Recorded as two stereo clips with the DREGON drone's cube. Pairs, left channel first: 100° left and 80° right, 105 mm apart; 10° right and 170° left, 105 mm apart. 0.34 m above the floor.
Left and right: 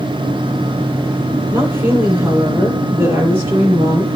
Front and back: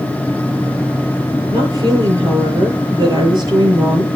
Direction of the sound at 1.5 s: 150° right.